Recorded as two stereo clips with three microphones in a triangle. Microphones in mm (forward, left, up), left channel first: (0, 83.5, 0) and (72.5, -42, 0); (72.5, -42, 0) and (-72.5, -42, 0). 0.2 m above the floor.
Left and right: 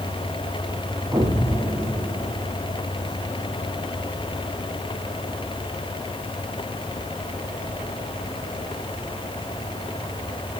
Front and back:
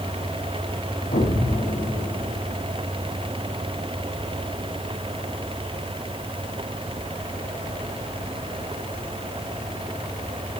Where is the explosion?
10° left, 5 m.